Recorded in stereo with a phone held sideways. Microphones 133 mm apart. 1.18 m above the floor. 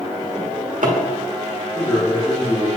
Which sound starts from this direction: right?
A drawer, at 0.3 s.